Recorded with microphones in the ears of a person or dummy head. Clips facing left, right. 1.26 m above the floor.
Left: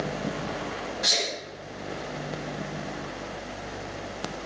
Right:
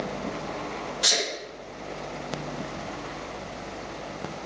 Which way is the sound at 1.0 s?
45° right (ahead or behind).